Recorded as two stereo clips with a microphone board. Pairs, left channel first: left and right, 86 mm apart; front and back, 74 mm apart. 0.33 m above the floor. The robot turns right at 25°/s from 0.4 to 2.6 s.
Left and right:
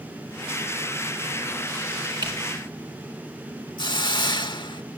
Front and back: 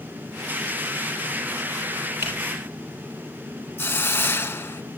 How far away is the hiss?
About 0.9 m.